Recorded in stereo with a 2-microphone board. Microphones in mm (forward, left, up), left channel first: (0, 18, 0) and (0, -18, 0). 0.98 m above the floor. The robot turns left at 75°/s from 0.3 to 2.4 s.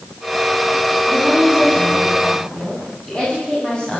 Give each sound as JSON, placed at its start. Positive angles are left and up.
{"t": 1.1, "sound": "a woman speaking", "azimuth_deg": -105, "distance_m": 8.5}